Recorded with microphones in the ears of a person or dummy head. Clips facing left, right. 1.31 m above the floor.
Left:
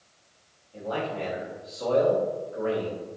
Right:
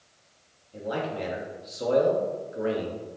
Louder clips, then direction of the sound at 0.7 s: Even; 25° right (ahead or behind).